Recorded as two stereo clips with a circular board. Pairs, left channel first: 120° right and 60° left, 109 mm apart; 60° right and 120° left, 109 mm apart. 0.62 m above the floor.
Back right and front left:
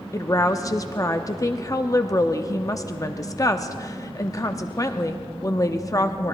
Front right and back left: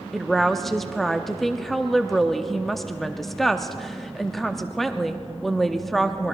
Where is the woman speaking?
145° right, 0.6 m.